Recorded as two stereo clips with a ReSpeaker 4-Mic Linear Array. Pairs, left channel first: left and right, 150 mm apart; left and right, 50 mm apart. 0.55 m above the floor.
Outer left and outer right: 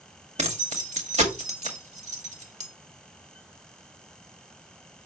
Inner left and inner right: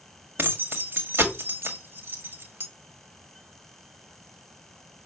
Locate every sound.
0.4 s keys jangling: 45° right (ahead or behind), 1.7 m